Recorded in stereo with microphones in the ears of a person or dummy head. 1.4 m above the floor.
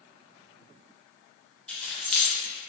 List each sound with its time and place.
1.7 s keys jangling: 15° left (ahead or behind), 0.5 m